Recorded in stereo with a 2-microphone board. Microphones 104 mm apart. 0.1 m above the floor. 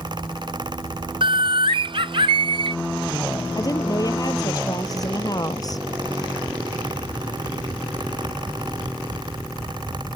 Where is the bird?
60° right (ahead or behind).